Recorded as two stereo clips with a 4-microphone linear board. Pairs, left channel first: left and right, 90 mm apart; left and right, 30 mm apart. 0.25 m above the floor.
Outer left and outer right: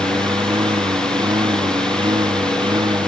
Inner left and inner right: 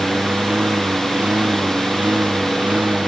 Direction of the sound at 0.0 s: 60° right (ahead or behind).